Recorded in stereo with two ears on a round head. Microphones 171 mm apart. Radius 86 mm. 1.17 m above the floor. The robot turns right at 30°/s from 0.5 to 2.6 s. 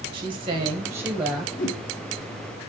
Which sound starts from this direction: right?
A woman speaking, at 0.1 s.